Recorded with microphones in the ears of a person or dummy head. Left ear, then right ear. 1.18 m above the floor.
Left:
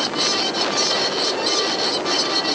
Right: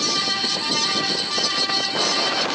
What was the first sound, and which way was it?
Only background noise.